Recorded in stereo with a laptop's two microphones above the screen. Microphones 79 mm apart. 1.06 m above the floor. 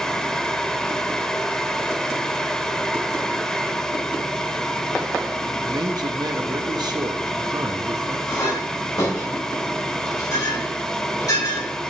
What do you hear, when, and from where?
0.0 s a fan: 5° left (ahead or behind), 0.8 m
5.7 s a man speaking: 55° right (ahead or behind), 1.2 m
8.3 s a clink: 50° left (ahead or behind), 4 m